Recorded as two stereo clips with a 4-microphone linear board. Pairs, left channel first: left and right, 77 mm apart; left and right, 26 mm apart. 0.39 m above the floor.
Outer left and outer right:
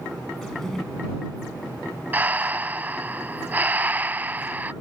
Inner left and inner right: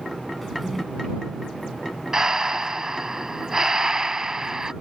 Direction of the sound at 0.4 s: 5° left (ahead or behind).